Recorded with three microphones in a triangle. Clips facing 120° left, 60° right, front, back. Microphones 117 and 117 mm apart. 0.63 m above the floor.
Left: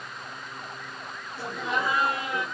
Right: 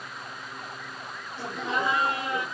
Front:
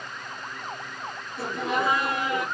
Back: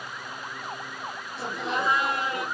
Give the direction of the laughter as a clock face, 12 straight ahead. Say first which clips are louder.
Even, front 3 dB; 11 o'clock.